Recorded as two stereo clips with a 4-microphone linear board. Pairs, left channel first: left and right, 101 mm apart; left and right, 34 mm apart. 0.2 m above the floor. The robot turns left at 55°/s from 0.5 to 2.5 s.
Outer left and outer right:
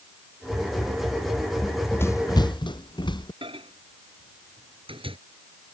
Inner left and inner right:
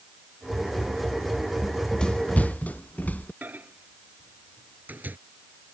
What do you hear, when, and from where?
1.6 s running footsteps: 5° left (ahead or behind); by 3.3 s 50° left (ahead or behind)
3.4 s a microwave: 65° right (ahead or behind)